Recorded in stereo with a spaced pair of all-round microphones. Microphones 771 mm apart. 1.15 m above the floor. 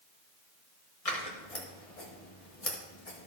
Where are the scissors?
50° left (ahead or behind), 1.8 m.